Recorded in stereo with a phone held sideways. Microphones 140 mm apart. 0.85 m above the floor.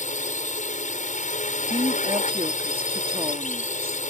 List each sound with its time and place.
0.0 s a drone: 65° left (ahead or behind)
1.7 s a woman speaking: 40° right (ahead or behind)